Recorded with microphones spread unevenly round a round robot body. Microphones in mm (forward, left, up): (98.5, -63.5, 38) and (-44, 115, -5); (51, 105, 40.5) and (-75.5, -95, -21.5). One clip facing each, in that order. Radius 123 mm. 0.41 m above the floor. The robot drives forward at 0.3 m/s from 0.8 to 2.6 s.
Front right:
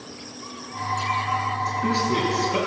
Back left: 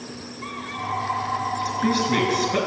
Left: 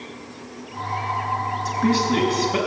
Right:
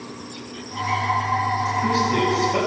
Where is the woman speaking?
125° left, 5.5 m; by 2.6 s 130° left, 6 m.